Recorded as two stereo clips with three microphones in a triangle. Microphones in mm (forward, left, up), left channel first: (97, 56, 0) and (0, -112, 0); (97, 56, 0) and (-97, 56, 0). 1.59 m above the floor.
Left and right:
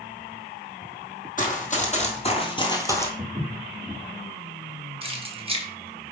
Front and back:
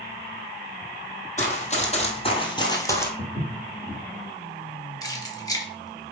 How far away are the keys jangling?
About 1.2 m.